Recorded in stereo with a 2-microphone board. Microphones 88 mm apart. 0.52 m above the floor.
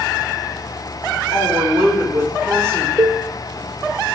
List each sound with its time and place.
1.3 s a woman speaking: 35° right (ahead or behind), 1.5 m
3.0 s a cowbell: 30° right (ahead or behind), 0.6 m